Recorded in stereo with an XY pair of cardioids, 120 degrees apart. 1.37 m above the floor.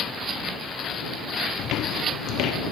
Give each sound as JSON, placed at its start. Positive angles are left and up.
{"t": 1.6, "sound": "footsteps", "azimuth_deg": 65}